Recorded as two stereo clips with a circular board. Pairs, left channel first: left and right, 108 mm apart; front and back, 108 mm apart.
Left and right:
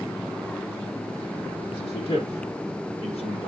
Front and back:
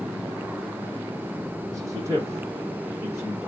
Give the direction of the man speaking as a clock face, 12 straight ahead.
8 o'clock.